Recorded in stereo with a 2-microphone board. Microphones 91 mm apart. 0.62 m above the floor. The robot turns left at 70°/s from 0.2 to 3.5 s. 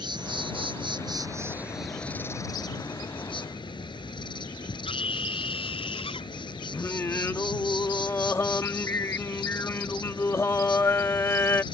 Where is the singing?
30° left (ahead or behind).